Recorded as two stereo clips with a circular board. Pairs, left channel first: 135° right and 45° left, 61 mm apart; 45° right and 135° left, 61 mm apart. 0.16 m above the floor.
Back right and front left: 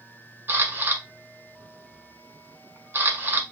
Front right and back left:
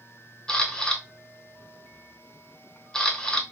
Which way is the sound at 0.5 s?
25° left.